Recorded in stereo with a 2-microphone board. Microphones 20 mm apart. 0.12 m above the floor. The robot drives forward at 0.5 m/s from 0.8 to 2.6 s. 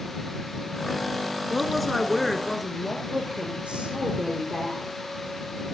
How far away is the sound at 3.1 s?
About 6.5 m.